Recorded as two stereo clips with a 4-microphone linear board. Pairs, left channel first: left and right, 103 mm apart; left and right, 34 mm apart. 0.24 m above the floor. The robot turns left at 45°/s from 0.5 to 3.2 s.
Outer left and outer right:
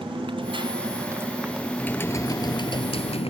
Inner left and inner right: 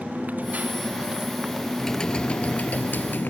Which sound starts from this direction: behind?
Typing on a keyboard, at 1.8 s.